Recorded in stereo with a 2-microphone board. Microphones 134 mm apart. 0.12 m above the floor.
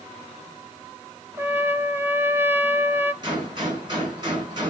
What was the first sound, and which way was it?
A trumpet, 15° right (ahead or behind).